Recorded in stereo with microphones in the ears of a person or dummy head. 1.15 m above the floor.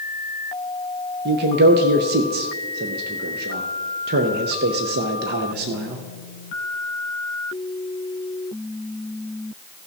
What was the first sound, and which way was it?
A man speaking, 50° right (ahead or behind).